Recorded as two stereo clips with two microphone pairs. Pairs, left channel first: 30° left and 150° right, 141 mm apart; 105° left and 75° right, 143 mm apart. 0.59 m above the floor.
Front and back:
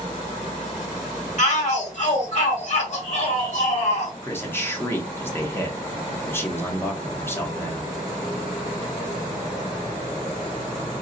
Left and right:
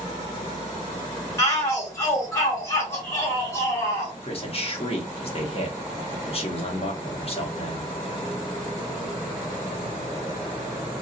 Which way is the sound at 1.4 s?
40° left.